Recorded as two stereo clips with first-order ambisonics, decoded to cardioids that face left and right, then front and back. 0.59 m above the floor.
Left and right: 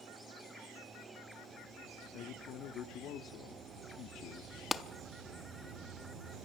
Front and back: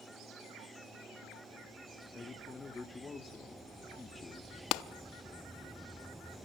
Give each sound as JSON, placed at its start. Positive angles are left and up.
{"t": 2.1, "sound": "a man speaking", "azimuth_deg": 70, "distance_m": 1.2}
{"t": 4.7, "sound": "a clap", "azimuth_deg": 15, "distance_m": 0.7}